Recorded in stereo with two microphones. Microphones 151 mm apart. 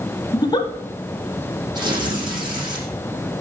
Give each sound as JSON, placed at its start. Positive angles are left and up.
{"t": 0.3, "sound": "a giggle", "side_deg": 30, "distance_m": 0.9}
{"t": 1.8, "sound": "tearing paper", "side_deg": -25, "distance_m": 5.5}